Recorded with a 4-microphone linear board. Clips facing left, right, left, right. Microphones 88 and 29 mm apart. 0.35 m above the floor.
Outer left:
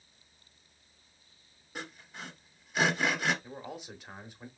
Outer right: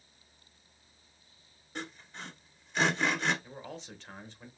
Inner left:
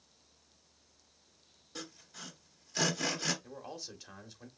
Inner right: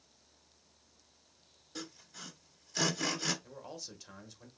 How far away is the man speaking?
About 1.0 m.